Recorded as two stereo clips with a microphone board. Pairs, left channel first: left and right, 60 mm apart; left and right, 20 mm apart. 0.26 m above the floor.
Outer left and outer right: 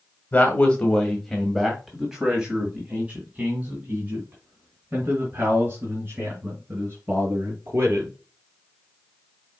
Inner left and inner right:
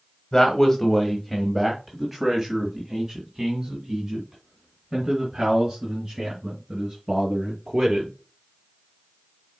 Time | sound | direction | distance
0.3 | a man speaking | 25° left (ahead or behind) | 1.3 m